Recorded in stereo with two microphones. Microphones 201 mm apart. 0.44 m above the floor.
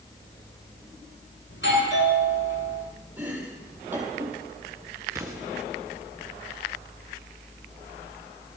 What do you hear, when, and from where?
1.5 s a doorbell: 75° left (ahead or behind), 7.5 m
3.2 s chopping: 10° right (ahead or behind), 5 m
5.1 s an explosion: 15° right (ahead or behind), 3.5 m